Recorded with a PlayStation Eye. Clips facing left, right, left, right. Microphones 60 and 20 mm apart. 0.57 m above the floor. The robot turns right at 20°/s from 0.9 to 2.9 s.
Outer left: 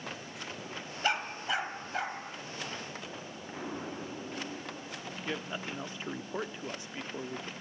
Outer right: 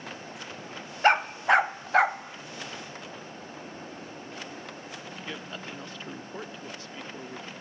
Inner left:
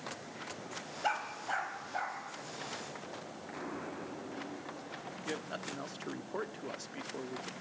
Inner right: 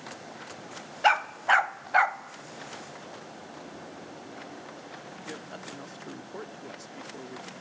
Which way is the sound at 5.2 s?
15° left (ahead or behind).